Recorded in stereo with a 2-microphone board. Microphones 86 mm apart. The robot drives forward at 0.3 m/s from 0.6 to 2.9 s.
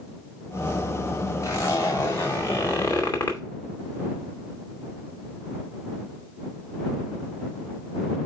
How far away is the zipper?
About 2 m.